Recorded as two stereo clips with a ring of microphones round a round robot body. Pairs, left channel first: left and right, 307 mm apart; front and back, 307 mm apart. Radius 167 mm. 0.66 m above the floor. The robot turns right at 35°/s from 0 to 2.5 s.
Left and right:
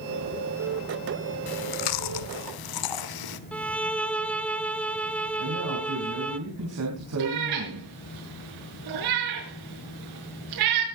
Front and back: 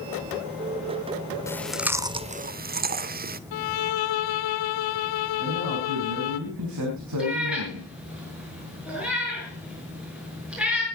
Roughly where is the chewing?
Left.